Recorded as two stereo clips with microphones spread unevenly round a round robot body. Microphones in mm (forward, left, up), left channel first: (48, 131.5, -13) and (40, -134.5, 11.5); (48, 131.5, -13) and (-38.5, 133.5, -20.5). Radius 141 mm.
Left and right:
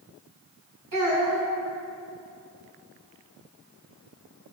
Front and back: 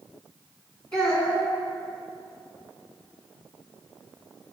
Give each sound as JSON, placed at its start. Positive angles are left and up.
{"t": 0.9, "sound": "a child speaking", "azimuth_deg": -115, "distance_m": 3.5}